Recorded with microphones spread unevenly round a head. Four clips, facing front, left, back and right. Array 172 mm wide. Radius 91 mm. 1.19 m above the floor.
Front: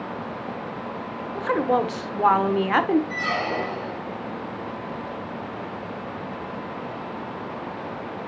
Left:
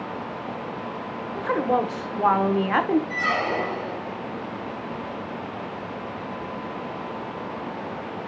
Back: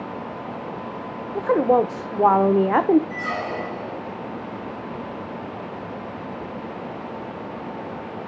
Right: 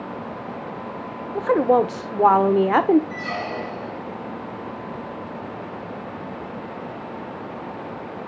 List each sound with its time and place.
1.4 s a woman speaking: 130° right, 0.8 m
3.1 s a squeak: 60° left, 2.5 m